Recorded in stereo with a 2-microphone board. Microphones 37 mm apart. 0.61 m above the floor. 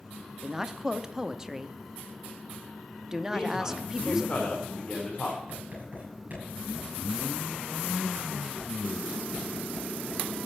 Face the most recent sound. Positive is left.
turn(degrees=-45)  # may be behind; listen again after turning